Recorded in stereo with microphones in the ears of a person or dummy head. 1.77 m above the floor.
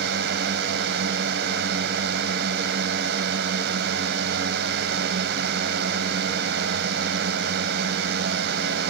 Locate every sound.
0.0 s a drone: 70° right (ahead or behind)